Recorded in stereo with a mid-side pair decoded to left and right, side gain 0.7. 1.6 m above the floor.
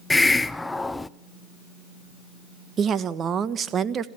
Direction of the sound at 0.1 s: 10° left.